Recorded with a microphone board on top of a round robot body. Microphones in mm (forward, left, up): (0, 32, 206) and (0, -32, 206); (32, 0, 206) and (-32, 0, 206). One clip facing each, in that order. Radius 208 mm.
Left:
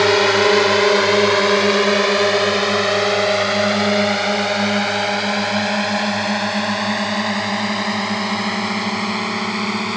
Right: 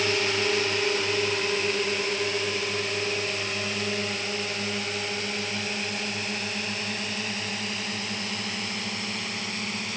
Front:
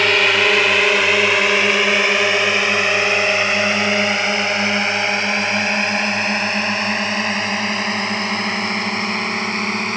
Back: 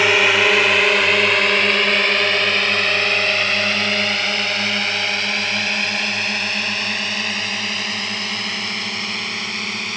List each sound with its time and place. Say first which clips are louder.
0.0 s a drone: left 12 dB, even; 95° left; by 10.0 s 60° left